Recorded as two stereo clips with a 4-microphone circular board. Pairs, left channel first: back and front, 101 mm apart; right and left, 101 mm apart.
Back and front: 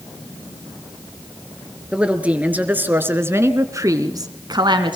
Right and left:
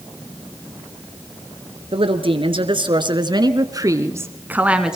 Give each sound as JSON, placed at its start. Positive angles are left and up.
{"t": 1.9, "sound": "a woman speaking", "azimuth_deg": 80, "distance_m": 3.0}